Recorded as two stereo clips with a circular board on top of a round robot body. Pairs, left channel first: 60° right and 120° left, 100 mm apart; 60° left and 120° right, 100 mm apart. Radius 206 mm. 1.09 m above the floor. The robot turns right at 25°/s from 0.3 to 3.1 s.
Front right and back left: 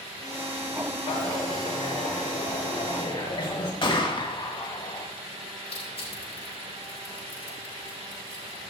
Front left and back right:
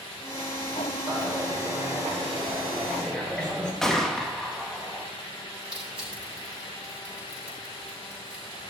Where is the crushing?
40° right, 7 m.